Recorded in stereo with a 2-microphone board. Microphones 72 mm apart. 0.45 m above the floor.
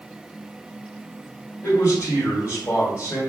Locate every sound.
1.6 s a man speaking: 45° left (ahead or behind), 1.8 m